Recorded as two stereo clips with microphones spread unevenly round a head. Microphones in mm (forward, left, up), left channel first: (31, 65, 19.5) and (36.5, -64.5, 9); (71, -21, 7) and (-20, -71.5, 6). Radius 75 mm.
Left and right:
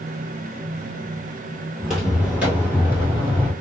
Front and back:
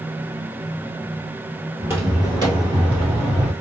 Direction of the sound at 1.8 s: Straight behind.